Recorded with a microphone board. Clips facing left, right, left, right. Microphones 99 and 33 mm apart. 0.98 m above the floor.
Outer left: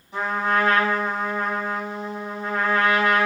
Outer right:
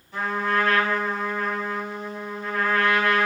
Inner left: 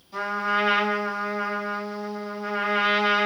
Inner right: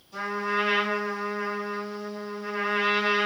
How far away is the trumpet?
About 4.5 m.